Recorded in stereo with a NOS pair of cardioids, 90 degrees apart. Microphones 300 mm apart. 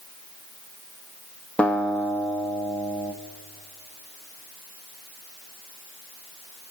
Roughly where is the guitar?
Ahead.